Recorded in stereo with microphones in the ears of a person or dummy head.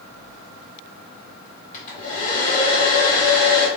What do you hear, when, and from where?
1.7 s a hair dryer: 45° left (ahead or behind), 0.9 m